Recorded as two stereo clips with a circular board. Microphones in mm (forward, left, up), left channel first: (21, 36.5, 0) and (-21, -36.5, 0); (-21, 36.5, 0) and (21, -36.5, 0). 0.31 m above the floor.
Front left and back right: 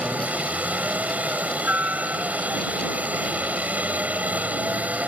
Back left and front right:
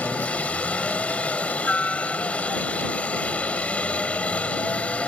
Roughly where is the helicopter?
Behind.